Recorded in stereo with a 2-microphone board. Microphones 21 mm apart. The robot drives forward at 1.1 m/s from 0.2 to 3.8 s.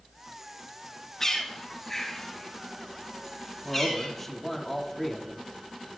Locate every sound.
1.2 s a bird: 20° left (ahead or behind), 3 m; by 4.1 s 10° left (ahead or behind), 5.5 m
3.6 s a man speaking: 10° left (ahead or behind), 2 m